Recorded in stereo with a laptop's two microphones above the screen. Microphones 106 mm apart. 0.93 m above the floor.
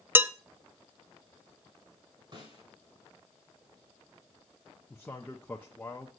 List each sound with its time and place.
0.1 s dishes clattering: 20° right (ahead or behind), 0.6 m
2.3 s a snare drum: 50° right (ahead or behind), 5 m
4.9 s a man speaking: 15° left (ahead or behind), 0.7 m